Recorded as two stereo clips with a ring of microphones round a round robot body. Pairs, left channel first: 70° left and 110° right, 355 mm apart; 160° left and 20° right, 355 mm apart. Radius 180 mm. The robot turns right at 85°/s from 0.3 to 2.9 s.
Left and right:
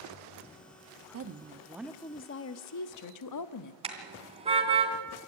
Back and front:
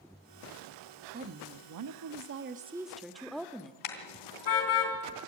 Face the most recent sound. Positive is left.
turn(degrees=175)